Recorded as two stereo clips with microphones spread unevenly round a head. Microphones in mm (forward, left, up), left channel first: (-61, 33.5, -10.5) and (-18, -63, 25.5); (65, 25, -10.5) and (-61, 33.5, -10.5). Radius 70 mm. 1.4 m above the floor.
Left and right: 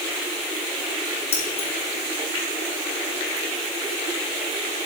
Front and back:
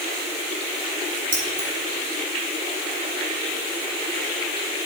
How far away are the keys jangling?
About 2.5 m.